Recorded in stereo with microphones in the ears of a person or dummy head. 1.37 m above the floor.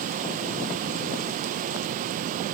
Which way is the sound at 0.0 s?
45° right (ahead or behind).